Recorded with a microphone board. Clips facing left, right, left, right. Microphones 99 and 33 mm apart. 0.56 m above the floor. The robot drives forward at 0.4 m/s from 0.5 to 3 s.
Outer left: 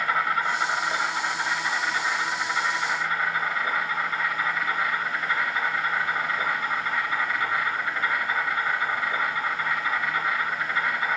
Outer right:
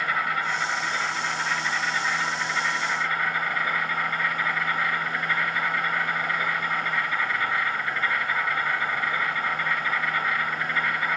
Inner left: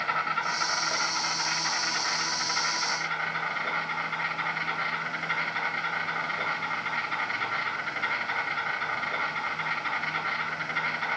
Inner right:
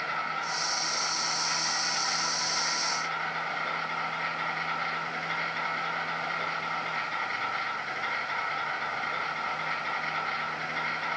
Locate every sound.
0.0 s an insect: 35° left (ahead or behind), 0.9 m; by 11.2 s 15° left (ahead or behind), 1.9 m